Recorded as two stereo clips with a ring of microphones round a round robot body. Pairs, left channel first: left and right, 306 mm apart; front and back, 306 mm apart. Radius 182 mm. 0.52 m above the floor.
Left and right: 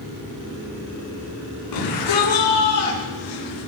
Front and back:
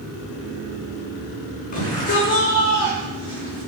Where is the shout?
65° left, 6.5 m; by 3.6 s 70° left, 8 m.